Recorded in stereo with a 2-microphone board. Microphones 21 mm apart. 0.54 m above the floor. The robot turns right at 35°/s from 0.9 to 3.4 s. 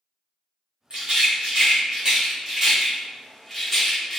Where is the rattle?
55° right (ahead or behind), 1.2 m; by 4.2 s 5° right (ahead or behind), 1.2 m.